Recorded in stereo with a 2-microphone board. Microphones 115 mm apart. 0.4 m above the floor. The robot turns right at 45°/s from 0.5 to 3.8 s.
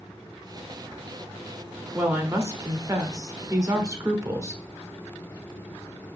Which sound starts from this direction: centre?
A woman speaking, at 1.9 s.